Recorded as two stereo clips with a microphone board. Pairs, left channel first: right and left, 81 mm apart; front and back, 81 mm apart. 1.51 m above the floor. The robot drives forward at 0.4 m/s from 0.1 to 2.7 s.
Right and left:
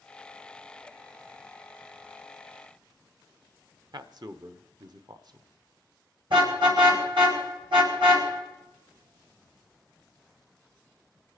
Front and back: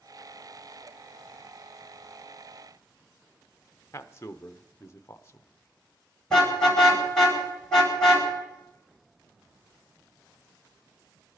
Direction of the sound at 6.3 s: 85° left.